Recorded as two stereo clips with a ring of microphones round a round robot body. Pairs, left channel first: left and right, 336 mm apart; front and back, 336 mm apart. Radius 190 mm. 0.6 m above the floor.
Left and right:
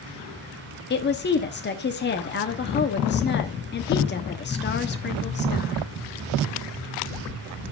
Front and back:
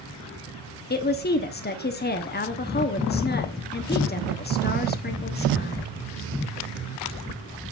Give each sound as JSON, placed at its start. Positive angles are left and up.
{"t": 0.9, "sound": "a woman speaking", "azimuth_deg": 45, "distance_m": 1.1}